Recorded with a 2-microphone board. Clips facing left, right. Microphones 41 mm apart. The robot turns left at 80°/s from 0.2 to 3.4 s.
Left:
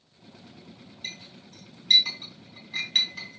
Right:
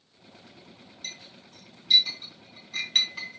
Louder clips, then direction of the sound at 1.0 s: Left 2 dB; 25° left (ahead or behind).